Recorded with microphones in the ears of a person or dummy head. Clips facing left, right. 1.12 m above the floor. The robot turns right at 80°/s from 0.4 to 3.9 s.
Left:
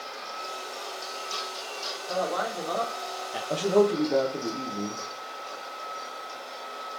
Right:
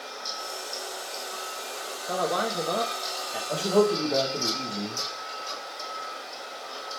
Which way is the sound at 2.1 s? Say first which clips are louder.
Right 1 dB; 100° right.